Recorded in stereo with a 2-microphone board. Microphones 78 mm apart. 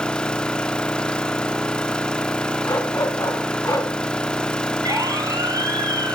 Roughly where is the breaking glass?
I don't hear breaking glass.